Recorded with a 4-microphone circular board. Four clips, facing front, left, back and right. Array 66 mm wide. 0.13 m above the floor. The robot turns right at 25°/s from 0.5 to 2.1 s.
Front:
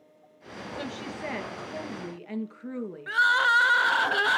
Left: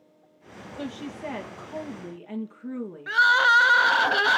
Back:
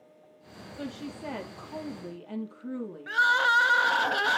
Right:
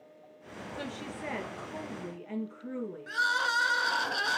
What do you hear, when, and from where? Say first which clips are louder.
0.8 s a woman speaking: left 6 dB, front 1 dB; 30° right, 2.5 m; by 3.2 s 5° left, 2.5 m
3.1 s crying: left 11 dB, front 1 dB; 75° left, 0.6 m